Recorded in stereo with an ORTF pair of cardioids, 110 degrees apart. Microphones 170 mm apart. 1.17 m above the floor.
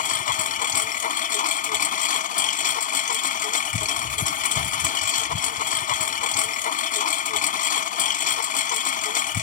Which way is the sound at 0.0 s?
50° left.